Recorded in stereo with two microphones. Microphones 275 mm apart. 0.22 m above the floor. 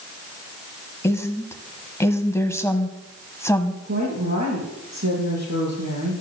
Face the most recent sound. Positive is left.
turn(degrees=-70)  # may be behind; listen again after turning